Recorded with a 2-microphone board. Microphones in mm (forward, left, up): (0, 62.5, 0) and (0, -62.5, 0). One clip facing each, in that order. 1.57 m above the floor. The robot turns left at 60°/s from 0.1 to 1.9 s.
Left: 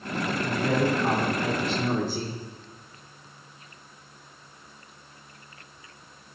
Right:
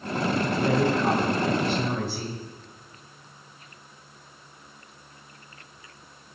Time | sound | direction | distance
0.4 | a woman speaking | 135° right | 1.5 m